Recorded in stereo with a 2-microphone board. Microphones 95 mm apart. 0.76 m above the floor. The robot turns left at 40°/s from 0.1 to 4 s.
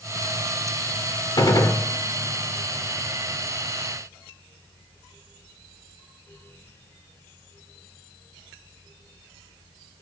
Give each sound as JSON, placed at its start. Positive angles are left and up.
{"t": 1.4, "sound": "a gunshot", "side_deg": 45, "distance_m": 2.0}